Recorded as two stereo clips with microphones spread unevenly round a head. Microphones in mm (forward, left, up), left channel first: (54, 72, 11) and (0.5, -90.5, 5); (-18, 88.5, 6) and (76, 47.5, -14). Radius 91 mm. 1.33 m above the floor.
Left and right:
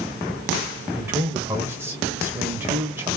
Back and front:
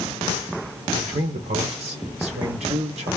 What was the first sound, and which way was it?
A man speaking, 30° right.